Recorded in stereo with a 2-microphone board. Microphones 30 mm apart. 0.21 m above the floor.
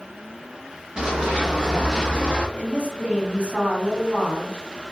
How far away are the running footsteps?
About 1.8 m.